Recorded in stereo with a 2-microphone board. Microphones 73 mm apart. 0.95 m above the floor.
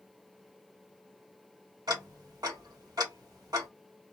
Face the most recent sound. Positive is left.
turn(degrees=-65)  # may be behind; listen again after turning